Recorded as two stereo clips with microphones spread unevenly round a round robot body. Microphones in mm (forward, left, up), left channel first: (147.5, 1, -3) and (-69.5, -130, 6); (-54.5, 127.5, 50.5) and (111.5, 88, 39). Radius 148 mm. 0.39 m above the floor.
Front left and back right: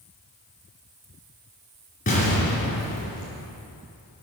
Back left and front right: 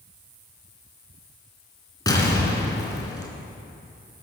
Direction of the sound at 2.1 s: 100° left.